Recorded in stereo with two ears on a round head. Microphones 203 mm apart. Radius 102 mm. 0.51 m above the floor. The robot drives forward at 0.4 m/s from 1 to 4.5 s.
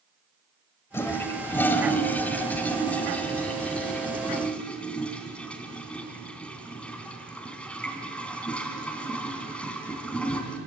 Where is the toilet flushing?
10° left (ahead or behind), 1.3 m; by 10.6 s 5° left (ahead or behind), 2.5 m.